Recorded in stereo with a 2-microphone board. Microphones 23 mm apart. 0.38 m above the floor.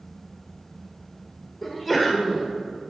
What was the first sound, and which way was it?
A sneeze, centre (ahead or behind).